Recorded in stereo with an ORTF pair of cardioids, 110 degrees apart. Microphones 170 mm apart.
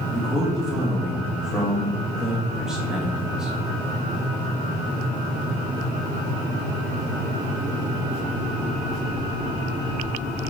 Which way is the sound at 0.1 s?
5° right.